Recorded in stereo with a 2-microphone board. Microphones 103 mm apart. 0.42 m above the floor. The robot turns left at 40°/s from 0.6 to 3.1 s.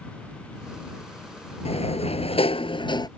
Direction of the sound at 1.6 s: 100° left.